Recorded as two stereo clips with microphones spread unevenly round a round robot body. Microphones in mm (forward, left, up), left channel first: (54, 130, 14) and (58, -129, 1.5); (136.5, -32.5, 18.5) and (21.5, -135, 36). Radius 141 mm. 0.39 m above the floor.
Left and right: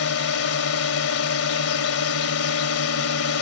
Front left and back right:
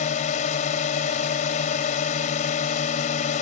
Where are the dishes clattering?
No dishes clattering in this recording.